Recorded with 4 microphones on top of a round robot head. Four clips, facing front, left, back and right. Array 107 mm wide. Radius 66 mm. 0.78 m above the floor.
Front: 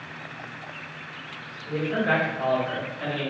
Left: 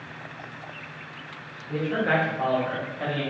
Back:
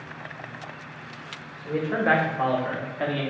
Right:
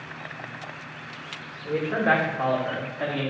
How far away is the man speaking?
About 1.0 m.